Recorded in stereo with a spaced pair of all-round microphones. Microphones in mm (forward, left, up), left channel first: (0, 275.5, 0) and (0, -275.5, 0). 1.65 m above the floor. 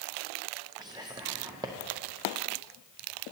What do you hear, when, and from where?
0.8 s whispering: 10° right (ahead or behind), 0.5 m